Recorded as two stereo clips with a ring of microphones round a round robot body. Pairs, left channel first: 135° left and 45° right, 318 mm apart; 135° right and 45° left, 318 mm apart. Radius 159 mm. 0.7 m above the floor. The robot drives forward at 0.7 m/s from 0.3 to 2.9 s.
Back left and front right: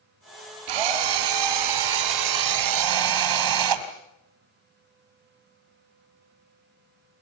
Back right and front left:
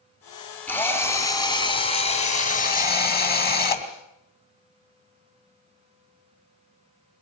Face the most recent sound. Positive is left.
turn(degrees=-75)